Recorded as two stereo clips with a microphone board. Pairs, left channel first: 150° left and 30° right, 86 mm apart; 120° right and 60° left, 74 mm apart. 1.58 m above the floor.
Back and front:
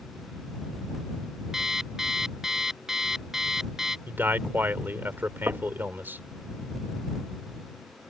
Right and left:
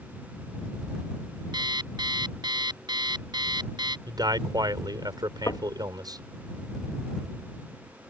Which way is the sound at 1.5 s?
55° left.